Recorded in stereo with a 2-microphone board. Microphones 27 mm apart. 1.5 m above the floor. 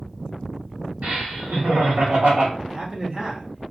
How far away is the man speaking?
About 1.0 m.